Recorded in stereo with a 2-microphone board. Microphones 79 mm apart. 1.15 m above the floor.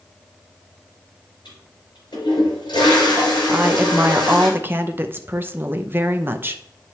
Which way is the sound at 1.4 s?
70° left (ahead or behind).